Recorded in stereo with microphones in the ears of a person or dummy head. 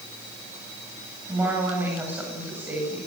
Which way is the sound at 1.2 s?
10° right (ahead or behind).